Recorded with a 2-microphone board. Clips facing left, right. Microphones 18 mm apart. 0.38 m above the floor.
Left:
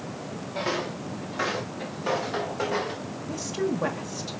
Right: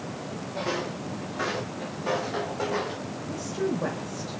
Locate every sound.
0.6 s footsteps: 35° left (ahead or behind), 3 m; by 3.0 s 15° left (ahead or behind), 4.5 m
3.3 s a woman speaking: 40° left (ahead or behind), 1.2 m